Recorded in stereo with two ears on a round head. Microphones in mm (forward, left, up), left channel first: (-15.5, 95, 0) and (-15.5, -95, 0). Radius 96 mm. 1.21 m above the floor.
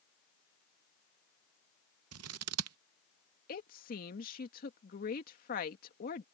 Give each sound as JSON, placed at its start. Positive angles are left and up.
{"t": 2.1, "sound": "scissors", "side_deg": -85}
{"t": 3.5, "sound": "a woman speaking", "side_deg": 40}